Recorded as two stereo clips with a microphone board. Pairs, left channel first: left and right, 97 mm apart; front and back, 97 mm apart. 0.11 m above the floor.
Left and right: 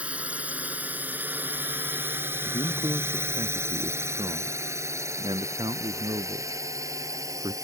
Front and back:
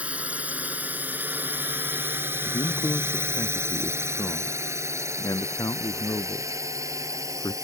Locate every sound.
0.0 s a drone: 135° right
2.5 s a man speaking: 50° right